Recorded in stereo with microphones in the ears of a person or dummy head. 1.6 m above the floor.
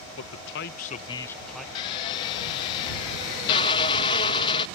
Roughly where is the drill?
Left.